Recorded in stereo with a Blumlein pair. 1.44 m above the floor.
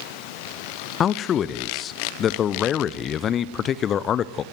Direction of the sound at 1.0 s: 25° left.